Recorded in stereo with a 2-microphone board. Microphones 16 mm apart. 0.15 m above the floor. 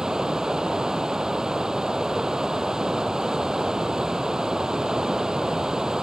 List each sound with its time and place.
0.0 s running water: 45° right (ahead or behind), 0.8 m